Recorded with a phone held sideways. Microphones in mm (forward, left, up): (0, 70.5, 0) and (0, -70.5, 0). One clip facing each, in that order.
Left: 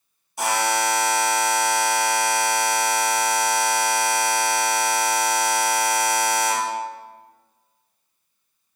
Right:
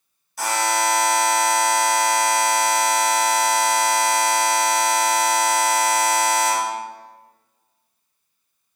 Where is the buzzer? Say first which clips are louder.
Even; 25° left (ahead or behind), 2.5 m.